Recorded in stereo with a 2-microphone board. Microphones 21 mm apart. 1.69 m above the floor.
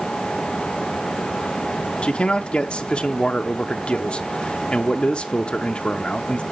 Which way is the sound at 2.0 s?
55° left (ahead or behind).